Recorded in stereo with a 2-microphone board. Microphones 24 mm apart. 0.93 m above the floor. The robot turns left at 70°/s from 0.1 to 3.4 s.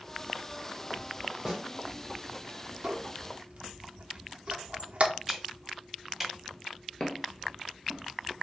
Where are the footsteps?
30° left (ahead or behind), 1.1 m; by 8.4 s 15° right (ahead or behind), 1.2 m.